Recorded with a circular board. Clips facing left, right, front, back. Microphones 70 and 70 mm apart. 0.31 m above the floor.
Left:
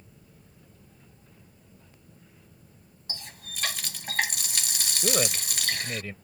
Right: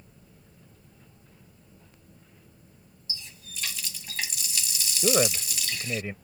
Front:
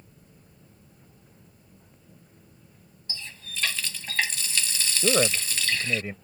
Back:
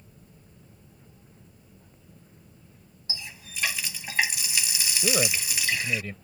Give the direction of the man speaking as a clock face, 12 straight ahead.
1 o'clock.